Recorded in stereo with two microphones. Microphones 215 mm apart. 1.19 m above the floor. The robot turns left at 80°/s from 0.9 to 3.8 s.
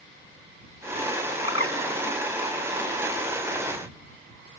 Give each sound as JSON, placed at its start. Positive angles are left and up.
{"t": 1.4, "sound": "a bird", "side_deg": 65}